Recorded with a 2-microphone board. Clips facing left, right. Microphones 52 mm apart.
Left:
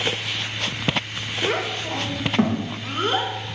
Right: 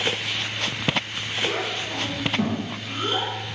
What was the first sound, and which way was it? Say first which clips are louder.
A child speaking: left 3 dB; 65° left (ahead or behind).